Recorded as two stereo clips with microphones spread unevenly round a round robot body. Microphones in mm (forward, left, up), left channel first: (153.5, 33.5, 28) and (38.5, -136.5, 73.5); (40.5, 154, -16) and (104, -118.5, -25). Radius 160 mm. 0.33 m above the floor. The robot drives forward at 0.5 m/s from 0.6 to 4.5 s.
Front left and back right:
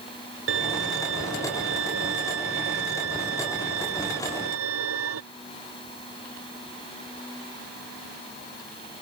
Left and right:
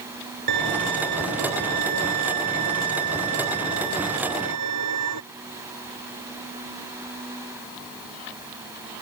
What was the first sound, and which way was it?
A violin, 110° right.